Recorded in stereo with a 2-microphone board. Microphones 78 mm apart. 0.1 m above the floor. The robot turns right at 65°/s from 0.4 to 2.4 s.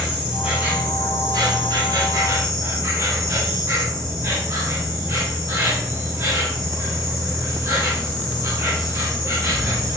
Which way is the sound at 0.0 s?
170° right.